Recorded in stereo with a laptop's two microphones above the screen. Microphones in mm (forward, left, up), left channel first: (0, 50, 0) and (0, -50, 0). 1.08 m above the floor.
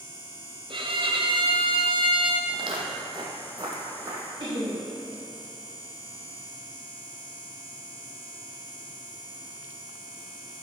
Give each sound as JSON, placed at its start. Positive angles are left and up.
{"t": 0.7, "sound": "a violin", "side_deg": -50, "distance_m": 0.7}
{"t": 2.5, "sound": "footsteps", "side_deg": -50, "distance_m": 1.7}
{"t": 4.4, "sound": "laughter", "side_deg": -55, "distance_m": 3.0}